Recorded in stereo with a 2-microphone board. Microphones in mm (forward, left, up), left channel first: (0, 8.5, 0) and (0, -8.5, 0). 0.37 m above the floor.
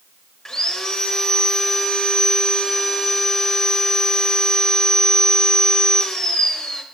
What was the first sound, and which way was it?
Sawing, 40° left (ahead or behind).